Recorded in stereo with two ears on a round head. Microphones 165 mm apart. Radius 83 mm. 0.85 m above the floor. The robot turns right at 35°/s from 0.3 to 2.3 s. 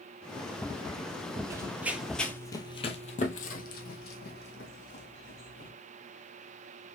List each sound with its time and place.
1.5 s running footsteps: 15° right (ahead or behind), 0.9 m; by 5.7 s 65° left (ahead or behind), 2.5 m